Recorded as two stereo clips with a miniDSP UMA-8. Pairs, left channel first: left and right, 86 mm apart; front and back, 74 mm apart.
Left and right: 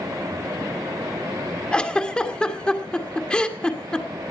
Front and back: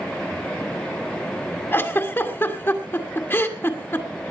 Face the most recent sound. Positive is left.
turn(degrees=20)